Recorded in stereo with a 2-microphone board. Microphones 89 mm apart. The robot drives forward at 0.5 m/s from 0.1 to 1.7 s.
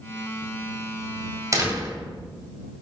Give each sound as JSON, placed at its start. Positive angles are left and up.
{"t": 1.5, "sound": "a door slam", "side_deg": -35, "distance_m": 2.0}